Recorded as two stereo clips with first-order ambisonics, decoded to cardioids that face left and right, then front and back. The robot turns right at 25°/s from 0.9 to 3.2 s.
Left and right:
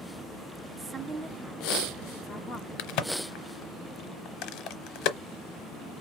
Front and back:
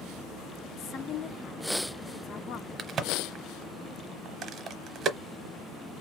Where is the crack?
110° left, 0.8 m; by 5.2 s 120° left, 0.8 m.